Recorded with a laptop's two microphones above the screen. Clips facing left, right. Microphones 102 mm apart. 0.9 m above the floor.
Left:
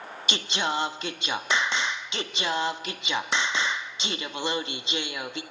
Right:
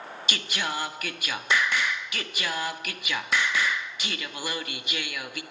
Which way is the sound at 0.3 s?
25° left (ahead or behind).